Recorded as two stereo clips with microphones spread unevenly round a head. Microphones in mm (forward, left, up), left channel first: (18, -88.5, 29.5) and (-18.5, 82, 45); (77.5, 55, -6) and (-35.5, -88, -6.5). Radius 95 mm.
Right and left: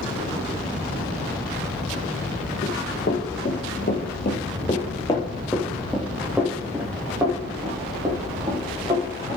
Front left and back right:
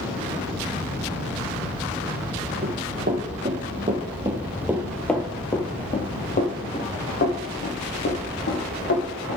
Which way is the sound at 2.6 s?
115° right.